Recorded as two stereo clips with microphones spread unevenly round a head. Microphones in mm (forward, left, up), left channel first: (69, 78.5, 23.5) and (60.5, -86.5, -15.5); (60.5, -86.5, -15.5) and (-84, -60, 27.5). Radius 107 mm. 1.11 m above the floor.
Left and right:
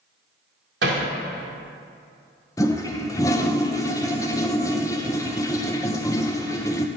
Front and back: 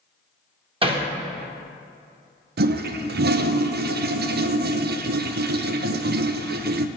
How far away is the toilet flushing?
About 0.6 m.